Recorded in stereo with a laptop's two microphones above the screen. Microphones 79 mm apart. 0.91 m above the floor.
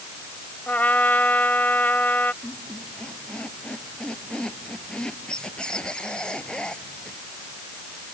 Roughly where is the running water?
No running water in this recording.